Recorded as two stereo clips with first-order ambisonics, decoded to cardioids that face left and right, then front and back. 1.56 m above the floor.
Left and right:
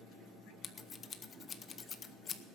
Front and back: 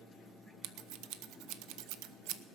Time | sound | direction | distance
0.6 | scissors | 155° left | 0.7 m